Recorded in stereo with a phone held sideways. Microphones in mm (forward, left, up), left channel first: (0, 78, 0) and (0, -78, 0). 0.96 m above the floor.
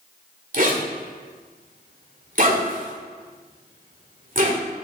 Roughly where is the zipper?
Right.